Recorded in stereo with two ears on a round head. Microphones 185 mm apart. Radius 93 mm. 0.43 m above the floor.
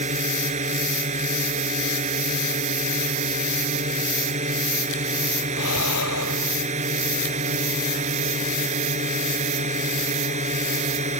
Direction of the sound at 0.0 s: 35° right (ahead or behind).